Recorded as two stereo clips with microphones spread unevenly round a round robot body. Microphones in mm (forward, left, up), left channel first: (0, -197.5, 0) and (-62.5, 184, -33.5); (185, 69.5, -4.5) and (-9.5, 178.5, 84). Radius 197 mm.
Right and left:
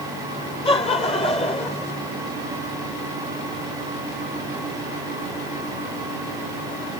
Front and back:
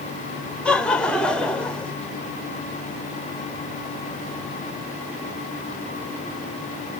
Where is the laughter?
10° right.